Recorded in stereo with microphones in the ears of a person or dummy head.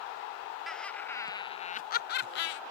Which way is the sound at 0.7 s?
Centre (ahead or behind).